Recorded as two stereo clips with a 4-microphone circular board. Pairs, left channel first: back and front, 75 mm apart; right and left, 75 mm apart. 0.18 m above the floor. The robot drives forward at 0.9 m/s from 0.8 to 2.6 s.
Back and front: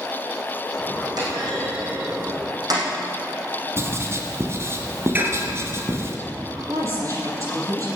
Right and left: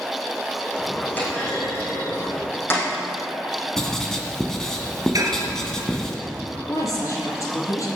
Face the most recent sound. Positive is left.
turn(degrees=-45)